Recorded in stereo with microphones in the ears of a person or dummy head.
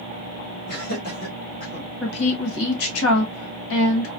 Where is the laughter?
55° left (ahead or behind), 1.8 m; by 1.9 s 50° left (ahead or behind), 2.5 m.